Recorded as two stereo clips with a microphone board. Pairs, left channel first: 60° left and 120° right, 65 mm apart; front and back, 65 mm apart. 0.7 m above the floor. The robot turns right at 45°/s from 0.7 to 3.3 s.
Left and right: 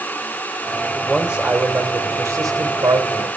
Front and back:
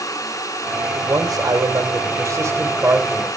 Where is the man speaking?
160° left, 2.5 m; by 3.3 s 100° right, 2.5 m.